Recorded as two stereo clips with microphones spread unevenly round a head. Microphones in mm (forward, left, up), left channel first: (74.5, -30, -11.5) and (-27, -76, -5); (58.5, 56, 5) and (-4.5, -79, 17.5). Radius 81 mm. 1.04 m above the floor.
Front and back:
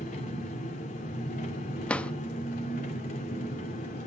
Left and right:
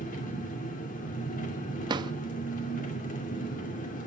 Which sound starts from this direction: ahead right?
A drawer, at 1.9 s.